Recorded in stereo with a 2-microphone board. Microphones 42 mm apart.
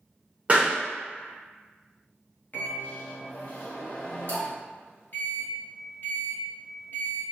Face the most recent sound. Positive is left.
turn(degrees=50)  # may be behind; listen again after turning